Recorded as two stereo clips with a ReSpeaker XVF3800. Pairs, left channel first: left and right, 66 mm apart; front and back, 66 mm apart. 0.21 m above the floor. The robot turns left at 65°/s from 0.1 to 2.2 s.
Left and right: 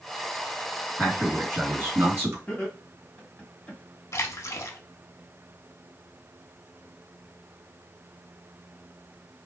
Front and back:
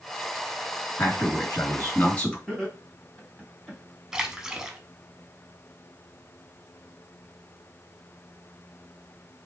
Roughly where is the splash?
Left.